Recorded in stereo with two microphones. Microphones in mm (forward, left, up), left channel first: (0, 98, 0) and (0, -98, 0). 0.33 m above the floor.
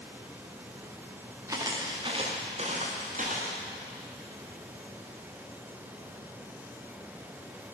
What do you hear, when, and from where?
1.5 s footsteps: 15° right (ahead or behind), 3 m; by 3.6 s 45° right (ahead or behind), 4.5 m